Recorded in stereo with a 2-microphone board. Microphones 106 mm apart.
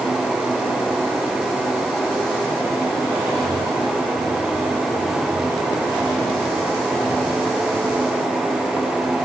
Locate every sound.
Only background noise.